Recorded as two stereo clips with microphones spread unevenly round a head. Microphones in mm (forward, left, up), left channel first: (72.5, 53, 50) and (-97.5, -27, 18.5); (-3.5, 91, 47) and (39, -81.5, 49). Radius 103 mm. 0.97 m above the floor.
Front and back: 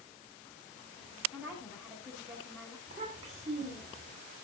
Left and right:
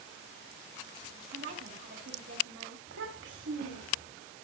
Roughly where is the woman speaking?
Ahead right.